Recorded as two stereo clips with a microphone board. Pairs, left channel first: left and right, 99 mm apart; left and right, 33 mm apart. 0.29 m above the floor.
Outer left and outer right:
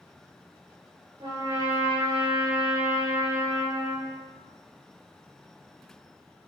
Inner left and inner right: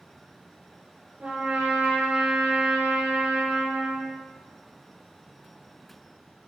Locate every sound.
1.2 s a trumpet: 60° right (ahead or behind), 5 m